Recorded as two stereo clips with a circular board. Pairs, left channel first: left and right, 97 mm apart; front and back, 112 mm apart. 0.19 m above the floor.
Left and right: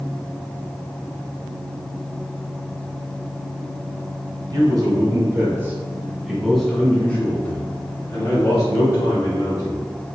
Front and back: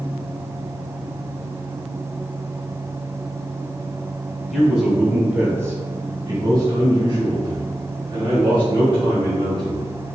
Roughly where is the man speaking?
Right.